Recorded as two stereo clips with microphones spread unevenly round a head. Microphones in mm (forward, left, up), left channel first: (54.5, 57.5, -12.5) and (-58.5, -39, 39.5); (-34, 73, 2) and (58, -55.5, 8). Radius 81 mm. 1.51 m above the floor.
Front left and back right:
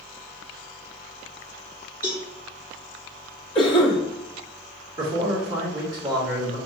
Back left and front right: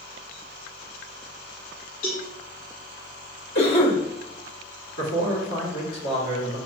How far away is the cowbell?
About 2 m.